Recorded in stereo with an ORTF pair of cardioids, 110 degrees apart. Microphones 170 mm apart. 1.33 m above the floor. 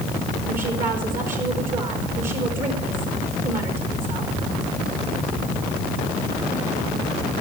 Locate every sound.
0.5 s a woman speaking: 50° right, 4 m